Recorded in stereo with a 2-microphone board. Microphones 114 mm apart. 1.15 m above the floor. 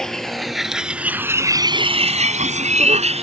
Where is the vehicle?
5° left (ahead or behind); by 3.2 s 60° right (ahead or behind).